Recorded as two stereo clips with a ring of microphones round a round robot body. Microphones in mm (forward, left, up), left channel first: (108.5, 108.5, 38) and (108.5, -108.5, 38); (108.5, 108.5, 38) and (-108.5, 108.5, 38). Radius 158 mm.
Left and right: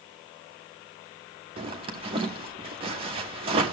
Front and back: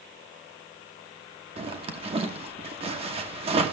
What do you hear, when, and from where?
1.6 s a zipper: 135° right, 0.9 m